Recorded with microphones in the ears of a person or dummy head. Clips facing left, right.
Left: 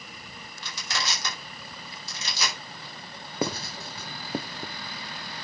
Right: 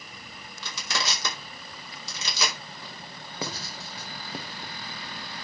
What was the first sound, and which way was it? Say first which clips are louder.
Crushing: right 2 dB; 70° right (ahead or behind).